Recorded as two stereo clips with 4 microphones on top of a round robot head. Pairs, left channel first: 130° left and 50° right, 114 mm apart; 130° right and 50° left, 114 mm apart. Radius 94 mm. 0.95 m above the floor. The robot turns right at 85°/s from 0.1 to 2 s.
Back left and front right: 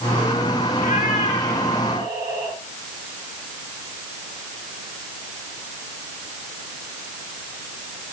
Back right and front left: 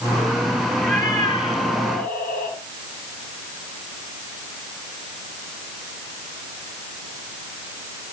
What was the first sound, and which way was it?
A cat meowing, 135° left.